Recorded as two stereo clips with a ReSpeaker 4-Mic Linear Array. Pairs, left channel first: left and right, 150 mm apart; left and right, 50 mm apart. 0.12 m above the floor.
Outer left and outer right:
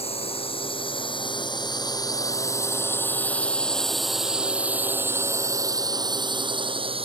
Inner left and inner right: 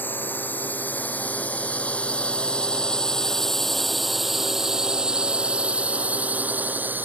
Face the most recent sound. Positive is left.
turn(degrees=-40)  # may be behind; listen again after turning